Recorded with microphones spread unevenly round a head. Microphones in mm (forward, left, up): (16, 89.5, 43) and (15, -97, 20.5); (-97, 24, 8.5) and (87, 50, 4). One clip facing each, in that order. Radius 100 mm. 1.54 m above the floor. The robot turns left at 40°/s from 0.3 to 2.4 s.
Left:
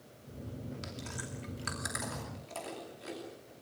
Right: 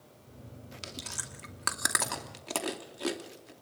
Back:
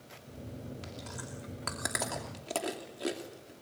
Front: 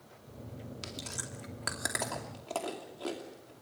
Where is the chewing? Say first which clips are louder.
Left 3 dB, even; 40° right, 2.5 m; by 3.5 s 100° right, 2.5 m.